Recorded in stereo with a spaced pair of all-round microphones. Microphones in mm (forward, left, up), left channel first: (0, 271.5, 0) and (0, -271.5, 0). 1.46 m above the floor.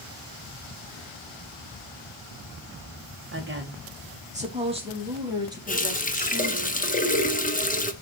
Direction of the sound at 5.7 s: 15° left (ahead or behind).